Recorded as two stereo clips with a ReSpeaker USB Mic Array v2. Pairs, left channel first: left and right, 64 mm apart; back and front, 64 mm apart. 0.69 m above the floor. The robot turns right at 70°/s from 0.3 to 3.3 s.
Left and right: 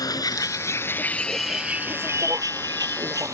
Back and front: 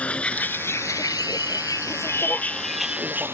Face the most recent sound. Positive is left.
turn(degrees=-55)